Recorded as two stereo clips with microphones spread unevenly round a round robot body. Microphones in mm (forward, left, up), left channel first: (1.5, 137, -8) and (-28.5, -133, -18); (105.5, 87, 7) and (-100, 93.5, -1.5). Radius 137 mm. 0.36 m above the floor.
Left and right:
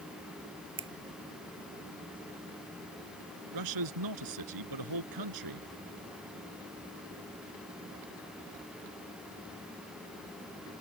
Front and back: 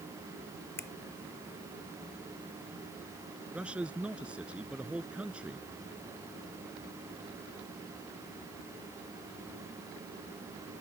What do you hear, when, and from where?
0.8 s a finger snap: 70° right
3.5 s a man speaking: 95° right